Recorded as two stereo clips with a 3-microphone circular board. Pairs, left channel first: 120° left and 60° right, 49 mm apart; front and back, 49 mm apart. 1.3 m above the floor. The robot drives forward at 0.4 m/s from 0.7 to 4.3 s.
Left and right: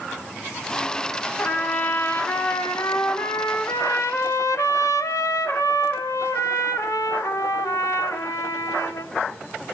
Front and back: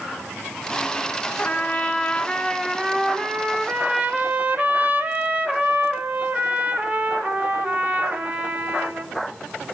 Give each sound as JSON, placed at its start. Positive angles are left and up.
{"t": 1.4, "sound": "a trumpet", "azimuth_deg": 60, "distance_m": 1.2}